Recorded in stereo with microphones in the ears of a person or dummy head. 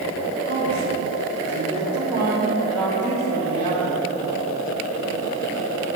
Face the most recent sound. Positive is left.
turn(degrees=35)  # may be behind; listen again after turning